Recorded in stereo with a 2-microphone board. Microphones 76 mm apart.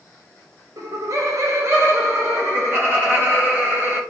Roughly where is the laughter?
Right.